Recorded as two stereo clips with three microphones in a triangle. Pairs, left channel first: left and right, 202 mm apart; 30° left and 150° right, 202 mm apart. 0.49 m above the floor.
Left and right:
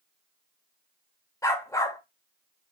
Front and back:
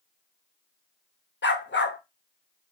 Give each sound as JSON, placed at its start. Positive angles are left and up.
{"t": 1.4, "sound": "a dog barking", "azimuth_deg": 20, "distance_m": 0.6}